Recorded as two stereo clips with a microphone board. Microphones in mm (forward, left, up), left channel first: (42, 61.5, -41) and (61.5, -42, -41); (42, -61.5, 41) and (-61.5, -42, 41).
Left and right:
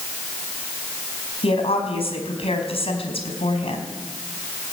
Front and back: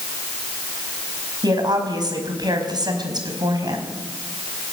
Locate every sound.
1.4 s a woman speaking: 120° left, 4.5 m